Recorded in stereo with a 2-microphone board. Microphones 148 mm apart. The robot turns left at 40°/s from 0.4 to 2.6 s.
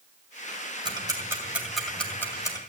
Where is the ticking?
35° right (ahead or behind), 2 m; by 2.6 s 30° left (ahead or behind), 2 m.